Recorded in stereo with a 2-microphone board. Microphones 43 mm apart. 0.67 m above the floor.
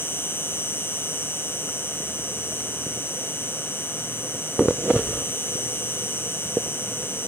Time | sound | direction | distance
0.0 | an insect | 60° left (ahead or behind) | 2.0 m